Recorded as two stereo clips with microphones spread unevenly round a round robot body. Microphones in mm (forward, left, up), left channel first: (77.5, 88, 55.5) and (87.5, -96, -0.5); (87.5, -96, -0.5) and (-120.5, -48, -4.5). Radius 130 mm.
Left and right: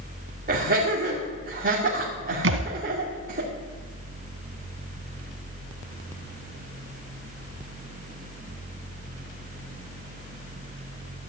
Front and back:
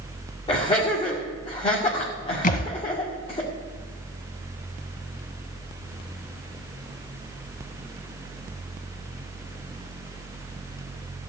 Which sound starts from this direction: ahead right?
A thud, at 2.4 s.